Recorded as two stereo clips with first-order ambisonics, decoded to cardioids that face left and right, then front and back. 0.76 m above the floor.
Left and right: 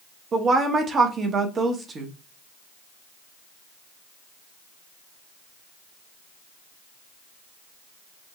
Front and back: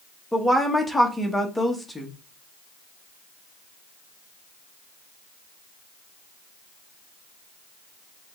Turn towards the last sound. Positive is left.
turn(degrees=-80)